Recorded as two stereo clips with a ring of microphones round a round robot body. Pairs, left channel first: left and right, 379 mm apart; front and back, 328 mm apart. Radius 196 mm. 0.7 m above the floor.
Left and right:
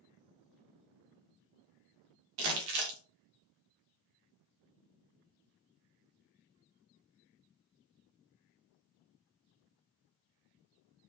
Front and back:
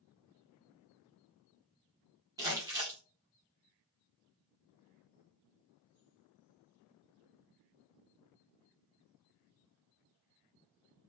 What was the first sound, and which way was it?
Crumpling, 100° right.